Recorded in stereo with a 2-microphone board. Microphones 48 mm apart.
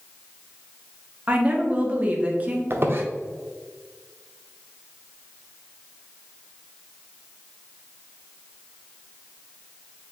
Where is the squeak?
55° right (ahead or behind), 0.7 m.